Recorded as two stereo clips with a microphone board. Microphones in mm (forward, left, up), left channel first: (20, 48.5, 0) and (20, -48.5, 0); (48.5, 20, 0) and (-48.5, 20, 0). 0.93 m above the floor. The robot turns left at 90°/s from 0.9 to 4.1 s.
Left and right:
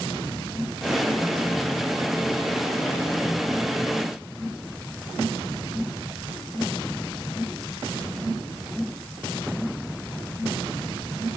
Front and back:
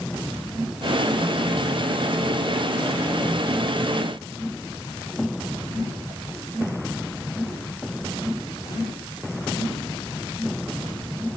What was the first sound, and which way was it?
Only background noise.